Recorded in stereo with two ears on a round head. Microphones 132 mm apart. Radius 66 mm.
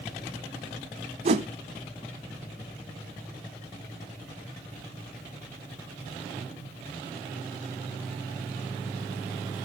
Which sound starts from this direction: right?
A whoosh, at 1.2 s.